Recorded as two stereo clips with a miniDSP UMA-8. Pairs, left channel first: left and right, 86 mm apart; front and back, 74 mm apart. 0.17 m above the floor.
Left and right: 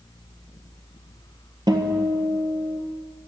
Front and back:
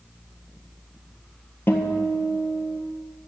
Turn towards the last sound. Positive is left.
turn(degrees=-60)